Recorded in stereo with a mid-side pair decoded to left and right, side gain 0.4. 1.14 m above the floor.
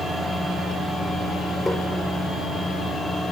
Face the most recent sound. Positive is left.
turn(degrees=20)